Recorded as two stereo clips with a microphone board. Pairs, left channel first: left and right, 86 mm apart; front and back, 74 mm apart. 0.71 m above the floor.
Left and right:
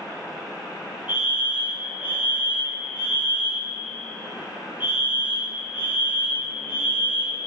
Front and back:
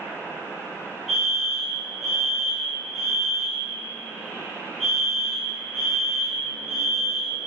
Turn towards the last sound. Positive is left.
turn(degrees=-90)